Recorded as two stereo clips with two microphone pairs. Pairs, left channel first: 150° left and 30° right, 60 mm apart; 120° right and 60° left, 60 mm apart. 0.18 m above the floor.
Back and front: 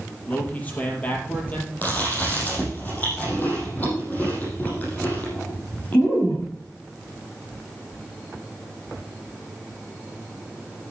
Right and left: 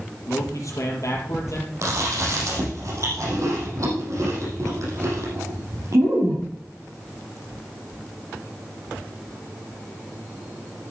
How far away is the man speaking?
About 4 m.